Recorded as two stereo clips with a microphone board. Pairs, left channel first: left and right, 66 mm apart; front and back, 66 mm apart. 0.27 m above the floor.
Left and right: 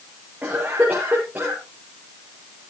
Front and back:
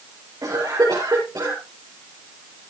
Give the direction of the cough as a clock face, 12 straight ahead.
5 o'clock.